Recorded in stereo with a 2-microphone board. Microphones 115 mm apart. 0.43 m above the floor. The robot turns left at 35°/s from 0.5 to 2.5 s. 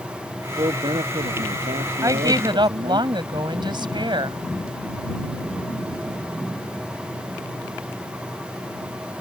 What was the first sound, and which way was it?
A man speaking, 40° right.